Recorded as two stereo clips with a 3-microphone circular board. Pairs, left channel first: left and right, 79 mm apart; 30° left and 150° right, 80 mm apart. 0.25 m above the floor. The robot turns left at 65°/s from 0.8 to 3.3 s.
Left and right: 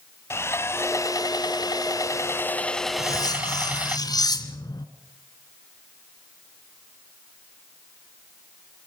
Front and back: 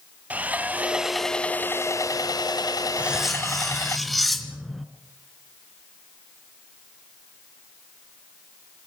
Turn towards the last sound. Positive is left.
turn(degrees=120)